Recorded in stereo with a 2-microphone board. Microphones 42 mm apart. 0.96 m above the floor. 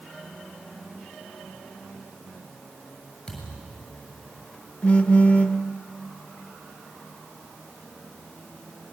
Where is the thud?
15° left (ahead or behind), 6.5 m.